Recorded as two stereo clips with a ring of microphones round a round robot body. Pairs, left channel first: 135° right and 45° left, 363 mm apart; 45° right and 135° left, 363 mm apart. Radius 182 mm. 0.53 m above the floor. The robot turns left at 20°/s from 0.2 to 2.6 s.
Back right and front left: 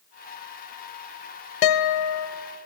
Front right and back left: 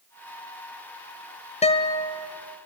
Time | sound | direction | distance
1.6 | a guitar | 120° right | 0.9 m